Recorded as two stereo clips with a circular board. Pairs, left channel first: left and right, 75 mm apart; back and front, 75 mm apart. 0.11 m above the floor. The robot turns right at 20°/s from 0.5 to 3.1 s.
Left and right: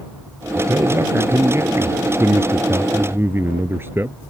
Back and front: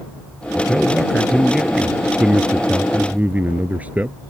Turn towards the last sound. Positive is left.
turn(degrees=-55)